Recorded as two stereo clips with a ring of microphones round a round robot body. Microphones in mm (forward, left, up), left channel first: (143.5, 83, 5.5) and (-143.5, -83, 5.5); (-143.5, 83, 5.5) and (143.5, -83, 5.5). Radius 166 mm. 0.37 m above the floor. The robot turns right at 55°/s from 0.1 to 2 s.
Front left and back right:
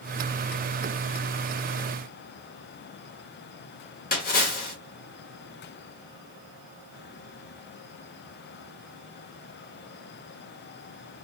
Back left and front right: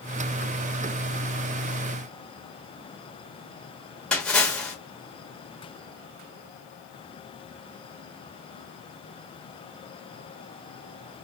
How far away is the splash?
About 1.1 m.